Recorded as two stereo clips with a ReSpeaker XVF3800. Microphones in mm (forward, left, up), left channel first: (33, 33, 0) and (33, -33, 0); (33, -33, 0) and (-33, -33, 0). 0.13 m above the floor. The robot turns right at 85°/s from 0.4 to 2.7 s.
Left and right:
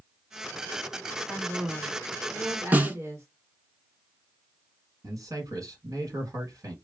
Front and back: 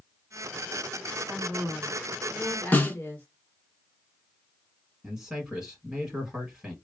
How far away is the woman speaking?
About 1.5 m.